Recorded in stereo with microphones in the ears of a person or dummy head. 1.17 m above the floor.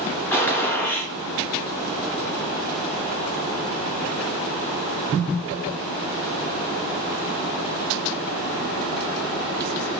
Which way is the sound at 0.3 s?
15° left (ahead or behind).